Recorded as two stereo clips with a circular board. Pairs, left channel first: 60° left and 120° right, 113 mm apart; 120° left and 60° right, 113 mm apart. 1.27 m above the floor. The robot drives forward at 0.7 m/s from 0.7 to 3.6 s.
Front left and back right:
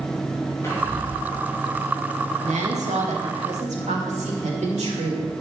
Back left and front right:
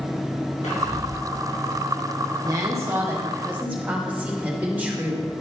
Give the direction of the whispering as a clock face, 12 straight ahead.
8 o'clock.